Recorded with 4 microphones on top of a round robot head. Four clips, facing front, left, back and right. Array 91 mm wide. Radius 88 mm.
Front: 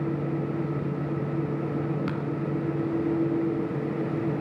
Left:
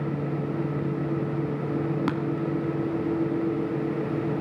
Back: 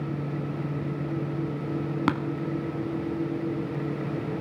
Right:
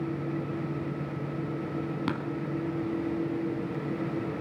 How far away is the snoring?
No snoring in this recording.